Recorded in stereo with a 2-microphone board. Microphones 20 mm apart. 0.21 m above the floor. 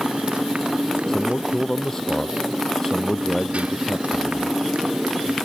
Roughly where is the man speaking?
Left.